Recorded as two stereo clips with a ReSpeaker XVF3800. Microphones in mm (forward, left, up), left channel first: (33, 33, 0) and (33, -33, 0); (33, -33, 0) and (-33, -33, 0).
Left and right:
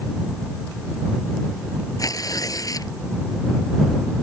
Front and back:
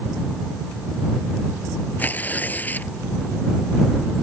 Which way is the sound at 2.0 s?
65° left.